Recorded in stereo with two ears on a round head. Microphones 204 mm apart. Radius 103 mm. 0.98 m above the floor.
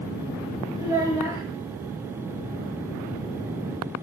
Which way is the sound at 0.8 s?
15° right (ahead or behind).